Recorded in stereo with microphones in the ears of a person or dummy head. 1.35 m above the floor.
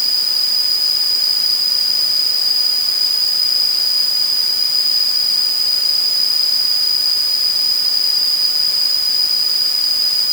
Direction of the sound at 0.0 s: Centre (ahead or behind).